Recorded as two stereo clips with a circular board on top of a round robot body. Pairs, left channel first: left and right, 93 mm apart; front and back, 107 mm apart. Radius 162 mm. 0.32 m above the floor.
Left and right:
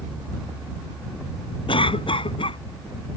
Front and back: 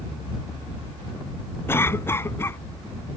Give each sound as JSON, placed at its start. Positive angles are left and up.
{"t": 1.7, "sound": "a cough", "azimuth_deg": 70}